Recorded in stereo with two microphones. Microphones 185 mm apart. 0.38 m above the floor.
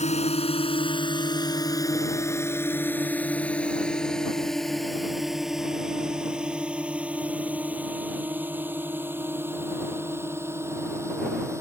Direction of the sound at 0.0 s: 35° left (ahead or behind).